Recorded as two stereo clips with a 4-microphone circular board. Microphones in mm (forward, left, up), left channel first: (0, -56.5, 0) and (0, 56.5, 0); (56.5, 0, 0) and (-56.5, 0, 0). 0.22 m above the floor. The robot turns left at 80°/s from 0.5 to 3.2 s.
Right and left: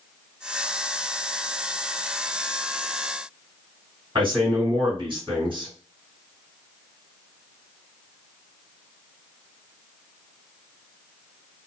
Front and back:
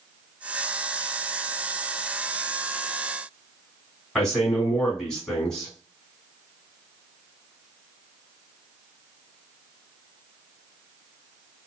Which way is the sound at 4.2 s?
85° left.